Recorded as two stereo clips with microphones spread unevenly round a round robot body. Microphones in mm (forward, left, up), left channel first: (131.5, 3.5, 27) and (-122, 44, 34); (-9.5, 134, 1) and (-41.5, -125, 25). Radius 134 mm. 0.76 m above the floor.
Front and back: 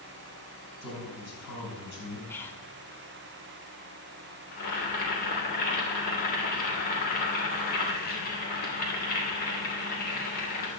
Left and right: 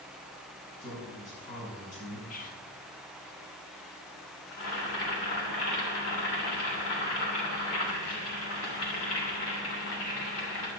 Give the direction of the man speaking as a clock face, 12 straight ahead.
11 o'clock.